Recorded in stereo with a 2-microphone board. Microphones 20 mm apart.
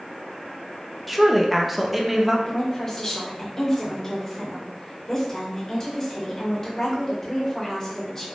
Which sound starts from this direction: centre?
A woman speaking, at 1.1 s.